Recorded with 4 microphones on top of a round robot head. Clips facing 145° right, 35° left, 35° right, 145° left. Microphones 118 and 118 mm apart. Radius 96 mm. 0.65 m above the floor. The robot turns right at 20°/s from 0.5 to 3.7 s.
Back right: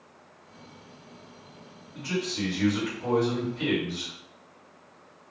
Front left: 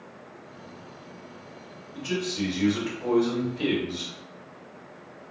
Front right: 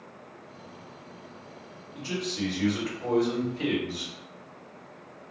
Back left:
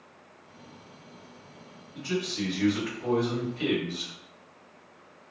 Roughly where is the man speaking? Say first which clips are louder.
Front left 2 dB, back left 1 dB; ahead right.